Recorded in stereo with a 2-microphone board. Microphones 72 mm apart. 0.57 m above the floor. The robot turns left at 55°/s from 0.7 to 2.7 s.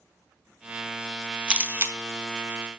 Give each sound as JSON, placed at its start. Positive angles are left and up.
{"t": 1.5, "sound": "a camera shutter", "side_deg": -15, "distance_m": 0.6}